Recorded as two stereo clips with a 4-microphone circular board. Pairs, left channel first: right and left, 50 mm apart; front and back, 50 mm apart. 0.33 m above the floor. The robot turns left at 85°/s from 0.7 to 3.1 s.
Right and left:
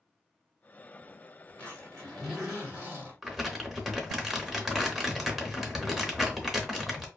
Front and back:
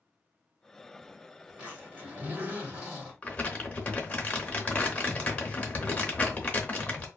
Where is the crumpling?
10° left, 0.7 m.